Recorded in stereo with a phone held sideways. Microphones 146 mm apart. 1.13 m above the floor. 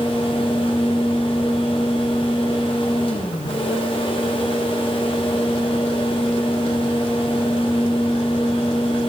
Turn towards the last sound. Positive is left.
turn(degrees=40)  # may be behind; listen again after turning